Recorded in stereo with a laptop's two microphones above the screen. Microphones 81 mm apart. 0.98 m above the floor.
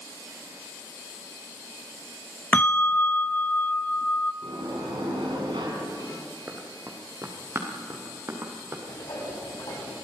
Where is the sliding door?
85° right, 6.5 m.